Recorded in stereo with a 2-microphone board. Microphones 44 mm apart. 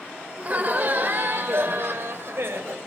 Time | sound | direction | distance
0.4 | laughter | 35° right (ahead or behind) | 2.0 m